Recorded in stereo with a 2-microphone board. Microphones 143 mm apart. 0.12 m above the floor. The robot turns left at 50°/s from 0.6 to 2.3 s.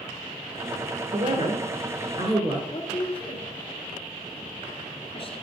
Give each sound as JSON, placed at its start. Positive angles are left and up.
{"t": 1.1, "sound": "a woman speaking", "azimuth_deg": -80, "distance_m": 1.5}
{"t": 2.7, "sound": "a woman speaking", "side_deg": 40, "distance_m": 1.7}